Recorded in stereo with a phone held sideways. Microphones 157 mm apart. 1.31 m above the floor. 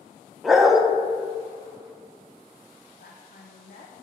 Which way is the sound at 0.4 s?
Centre (ahead or behind).